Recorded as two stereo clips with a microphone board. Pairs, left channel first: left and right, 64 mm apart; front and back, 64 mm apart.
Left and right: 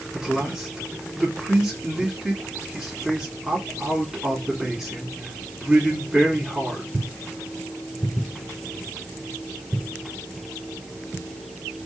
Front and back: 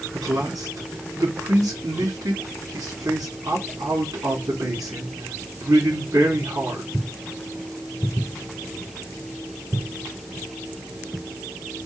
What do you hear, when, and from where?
0.1 s a man speaking: 170° right, 2 m